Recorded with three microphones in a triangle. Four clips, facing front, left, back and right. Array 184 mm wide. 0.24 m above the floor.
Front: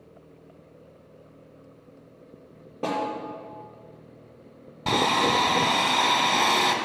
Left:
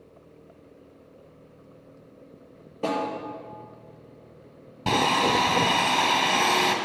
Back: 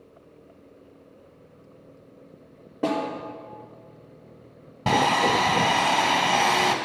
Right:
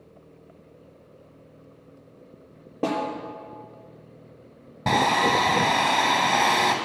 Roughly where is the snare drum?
Right.